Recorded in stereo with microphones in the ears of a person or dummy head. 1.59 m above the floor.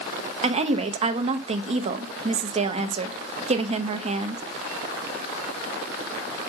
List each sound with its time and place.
0.4 s a woman speaking: 35° right (ahead or behind), 0.8 m